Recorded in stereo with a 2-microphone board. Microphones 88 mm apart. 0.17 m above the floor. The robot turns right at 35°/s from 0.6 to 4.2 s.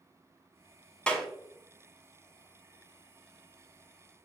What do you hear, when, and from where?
1.1 s a clap: 10° left (ahead or behind), 0.8 m; by 1.3 s 5° left (ahead or behind), 0.8 m